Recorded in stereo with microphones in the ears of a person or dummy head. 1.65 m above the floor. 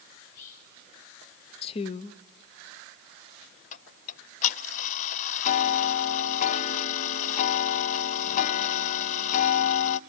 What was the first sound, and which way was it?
Whispering, 45° left (ahead or behind).